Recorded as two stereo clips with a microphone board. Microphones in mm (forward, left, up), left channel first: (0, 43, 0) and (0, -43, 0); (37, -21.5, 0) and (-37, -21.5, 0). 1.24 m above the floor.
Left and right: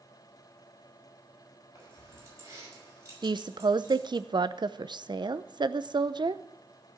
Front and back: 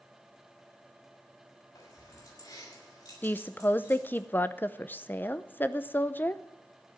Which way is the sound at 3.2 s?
65° right.